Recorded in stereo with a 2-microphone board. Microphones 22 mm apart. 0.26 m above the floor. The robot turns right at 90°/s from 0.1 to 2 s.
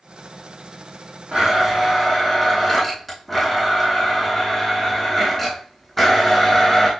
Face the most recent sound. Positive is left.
turn(degrees=15)